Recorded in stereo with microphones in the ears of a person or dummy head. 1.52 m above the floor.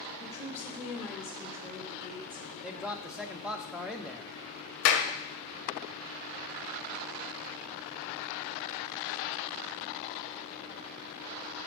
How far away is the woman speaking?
About 1.2 m.